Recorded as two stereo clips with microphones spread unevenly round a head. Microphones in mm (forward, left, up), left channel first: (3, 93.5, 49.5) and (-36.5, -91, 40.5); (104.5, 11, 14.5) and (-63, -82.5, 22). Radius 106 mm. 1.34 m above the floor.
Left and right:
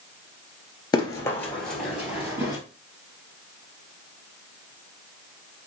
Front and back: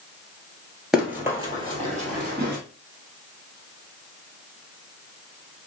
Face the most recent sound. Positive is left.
turn(degrees=-175)